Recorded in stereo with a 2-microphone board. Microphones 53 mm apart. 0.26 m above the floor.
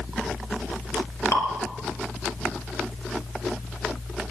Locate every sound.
1.3 s dripping: 65° left (ahead or behind), 3.5 m